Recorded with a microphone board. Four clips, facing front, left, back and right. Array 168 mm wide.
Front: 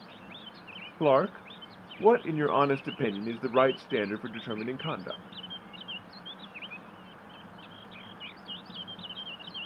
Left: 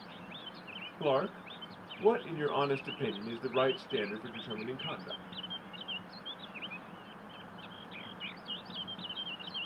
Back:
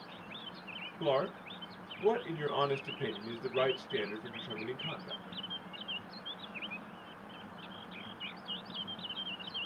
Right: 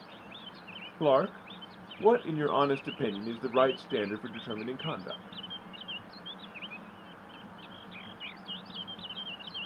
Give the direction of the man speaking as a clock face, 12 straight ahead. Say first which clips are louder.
Right 5 dB, front 8 dB; 1 o'clock.